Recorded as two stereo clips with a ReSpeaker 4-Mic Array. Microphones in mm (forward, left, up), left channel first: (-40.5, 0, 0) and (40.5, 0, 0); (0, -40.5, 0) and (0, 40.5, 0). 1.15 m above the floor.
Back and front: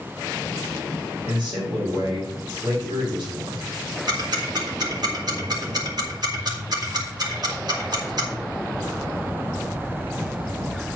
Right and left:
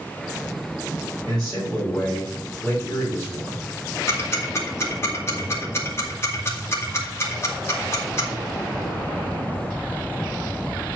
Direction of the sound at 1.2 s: 5° right.